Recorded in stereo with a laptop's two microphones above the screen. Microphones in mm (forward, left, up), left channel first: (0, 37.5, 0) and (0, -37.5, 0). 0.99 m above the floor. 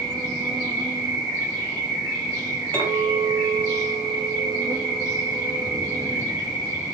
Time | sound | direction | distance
0.0 | an insect | 75° right (ahead or behind) | 1.2 m
2.7 | a clink | 30° left (ahead or behind) | 2 m